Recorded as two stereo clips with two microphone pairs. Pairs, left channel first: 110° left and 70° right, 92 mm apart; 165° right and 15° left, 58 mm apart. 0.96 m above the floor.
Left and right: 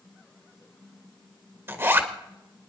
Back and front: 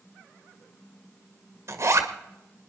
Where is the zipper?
10° right, 1.7 m.